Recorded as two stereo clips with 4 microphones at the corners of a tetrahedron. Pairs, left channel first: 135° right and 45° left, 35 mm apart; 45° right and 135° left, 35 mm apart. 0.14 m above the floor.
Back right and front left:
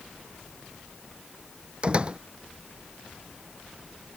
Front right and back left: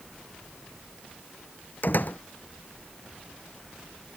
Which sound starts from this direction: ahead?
A door slam, at 1.8 s.